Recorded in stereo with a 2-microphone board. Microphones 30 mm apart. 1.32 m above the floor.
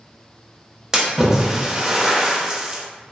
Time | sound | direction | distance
0.9 | a splash | 20° right (ahead or behind) | 0.8 m